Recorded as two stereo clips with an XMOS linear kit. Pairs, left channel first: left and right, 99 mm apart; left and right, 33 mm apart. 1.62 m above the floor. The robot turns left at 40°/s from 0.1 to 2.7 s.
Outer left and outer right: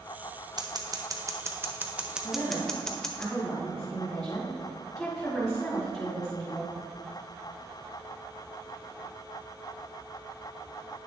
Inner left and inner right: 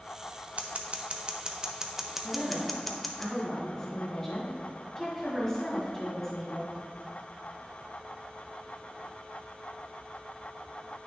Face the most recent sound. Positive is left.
turn(degrees=5)  # may be behind; listen again after turning